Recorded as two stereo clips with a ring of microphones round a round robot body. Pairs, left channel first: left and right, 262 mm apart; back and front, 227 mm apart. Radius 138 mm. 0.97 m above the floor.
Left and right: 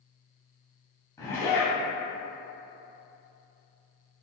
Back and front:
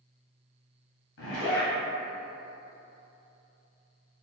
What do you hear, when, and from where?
1.2 s a zipper: 170° left, 1.3 m